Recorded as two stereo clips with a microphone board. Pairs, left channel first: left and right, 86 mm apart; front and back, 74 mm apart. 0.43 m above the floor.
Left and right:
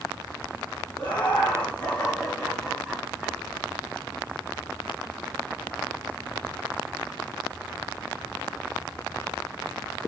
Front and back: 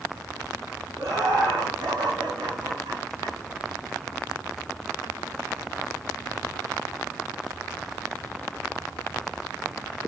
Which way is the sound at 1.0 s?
160° left.